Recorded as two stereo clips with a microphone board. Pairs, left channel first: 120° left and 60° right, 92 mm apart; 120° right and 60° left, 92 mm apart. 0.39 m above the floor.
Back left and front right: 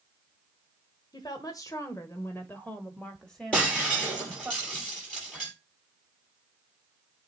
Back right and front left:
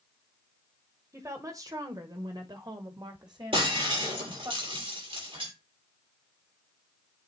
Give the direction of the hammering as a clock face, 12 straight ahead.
No hammering in this recording.